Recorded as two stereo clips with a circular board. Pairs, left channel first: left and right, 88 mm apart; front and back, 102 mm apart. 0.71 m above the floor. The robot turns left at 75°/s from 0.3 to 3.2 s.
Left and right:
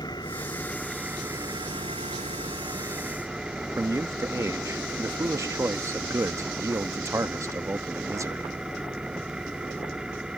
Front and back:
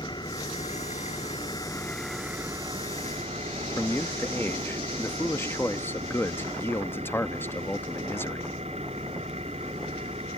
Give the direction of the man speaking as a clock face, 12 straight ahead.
2 o'clock.